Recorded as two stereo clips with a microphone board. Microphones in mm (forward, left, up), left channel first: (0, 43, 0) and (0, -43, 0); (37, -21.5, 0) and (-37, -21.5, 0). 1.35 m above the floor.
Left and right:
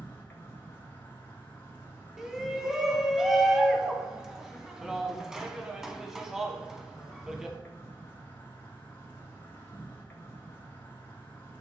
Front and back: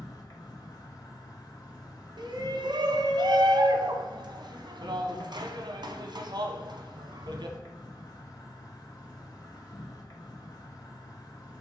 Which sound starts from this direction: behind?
A shout, at 2.2 s.